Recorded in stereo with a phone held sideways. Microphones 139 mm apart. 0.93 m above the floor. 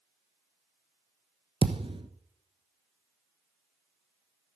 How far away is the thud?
About 1.1 m.